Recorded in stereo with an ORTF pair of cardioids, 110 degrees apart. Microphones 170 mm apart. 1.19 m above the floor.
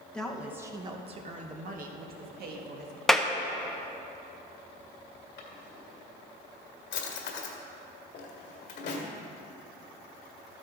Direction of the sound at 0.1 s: 5° left.